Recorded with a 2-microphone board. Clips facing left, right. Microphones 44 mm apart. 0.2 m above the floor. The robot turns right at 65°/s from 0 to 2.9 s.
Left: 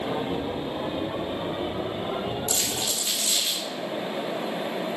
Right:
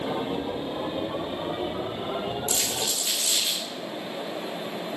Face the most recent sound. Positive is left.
turn(degrees=0)  # may be behind; listen again after turning